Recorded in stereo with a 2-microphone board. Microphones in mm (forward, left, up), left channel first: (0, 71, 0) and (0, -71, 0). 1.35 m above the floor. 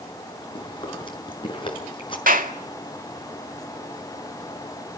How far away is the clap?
About 2.0 m.